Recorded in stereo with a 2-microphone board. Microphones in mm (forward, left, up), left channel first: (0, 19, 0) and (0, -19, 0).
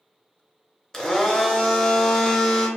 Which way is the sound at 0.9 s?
10° left (ahead or behind).